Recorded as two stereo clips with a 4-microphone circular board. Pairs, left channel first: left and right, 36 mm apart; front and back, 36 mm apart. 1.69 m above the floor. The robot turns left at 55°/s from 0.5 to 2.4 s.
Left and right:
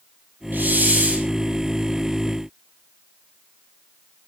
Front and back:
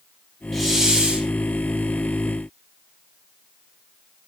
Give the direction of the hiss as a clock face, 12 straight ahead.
3 o'clock.